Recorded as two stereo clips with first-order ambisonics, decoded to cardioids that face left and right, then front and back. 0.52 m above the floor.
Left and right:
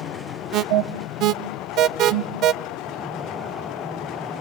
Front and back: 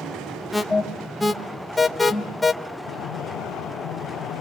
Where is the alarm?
80° right, 0.8 m.